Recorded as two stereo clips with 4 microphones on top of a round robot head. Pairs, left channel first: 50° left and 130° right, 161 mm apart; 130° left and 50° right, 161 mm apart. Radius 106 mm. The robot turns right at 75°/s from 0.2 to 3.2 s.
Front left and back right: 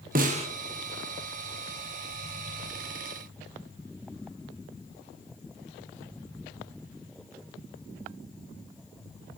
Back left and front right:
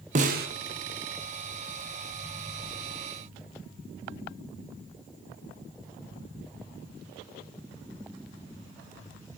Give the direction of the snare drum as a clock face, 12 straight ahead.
3 o'clock.